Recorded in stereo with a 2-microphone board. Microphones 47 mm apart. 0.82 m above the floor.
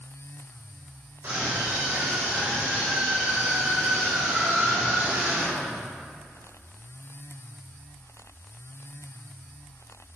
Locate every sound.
1.2 s a scream: 65° right (ahead or behind), 3.5 m; by 5.8 s 40° right (ahead or behind), 6.5 m